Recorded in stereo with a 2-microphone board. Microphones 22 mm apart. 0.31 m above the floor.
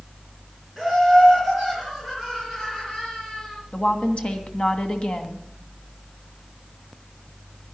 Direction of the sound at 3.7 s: 60° left (ahead or behind).